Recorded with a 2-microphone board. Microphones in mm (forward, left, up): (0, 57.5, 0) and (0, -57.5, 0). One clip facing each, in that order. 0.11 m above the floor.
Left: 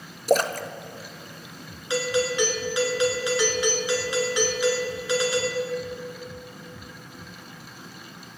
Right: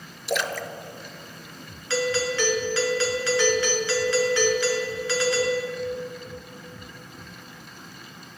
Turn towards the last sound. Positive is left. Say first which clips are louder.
# even
turn(degrees=15)  # may be behind; listen again after turning